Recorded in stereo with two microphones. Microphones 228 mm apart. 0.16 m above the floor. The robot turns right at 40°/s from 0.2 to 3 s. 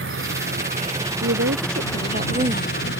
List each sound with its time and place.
0.0 s an insect: 55° right; by 3.0 s 55° left
1.2 s a woman speaking: 80° right; by 2.7 s 20° right